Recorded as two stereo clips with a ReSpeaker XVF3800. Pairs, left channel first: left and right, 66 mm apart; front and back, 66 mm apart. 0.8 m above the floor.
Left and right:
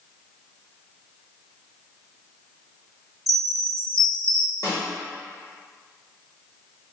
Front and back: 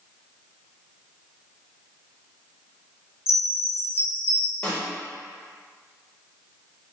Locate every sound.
3.3 s a chime: 50° right, 0.7 m
4.6 s a snare drum: 75° left, 1.4 m